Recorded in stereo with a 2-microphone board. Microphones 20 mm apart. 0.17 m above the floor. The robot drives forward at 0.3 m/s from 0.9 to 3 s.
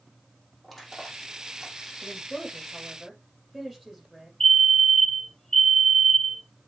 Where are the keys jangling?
No keys jangling in this recording.